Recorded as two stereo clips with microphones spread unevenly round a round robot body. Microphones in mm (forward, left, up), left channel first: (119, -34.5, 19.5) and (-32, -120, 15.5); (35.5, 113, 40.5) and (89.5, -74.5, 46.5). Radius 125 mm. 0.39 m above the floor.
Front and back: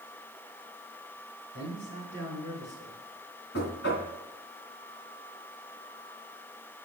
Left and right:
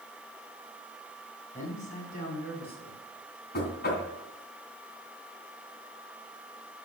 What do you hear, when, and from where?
1.5 s a man speaking: 55° left, 4 m; by 3.0 s 75° left, 3.5 m
3.5 s knocking: 65° left, 2.5 m